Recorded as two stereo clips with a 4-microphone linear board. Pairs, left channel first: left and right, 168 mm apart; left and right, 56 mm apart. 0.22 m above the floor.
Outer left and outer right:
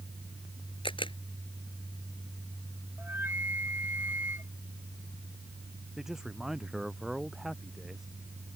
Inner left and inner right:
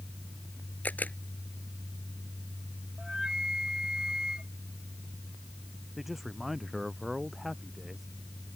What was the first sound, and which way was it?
A camera shutter, 30° left (ahead or behind).